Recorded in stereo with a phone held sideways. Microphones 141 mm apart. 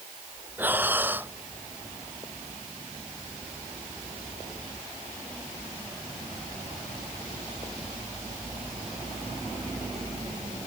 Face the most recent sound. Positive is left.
turn(degrees=-10)  # may be behind; listen again after turning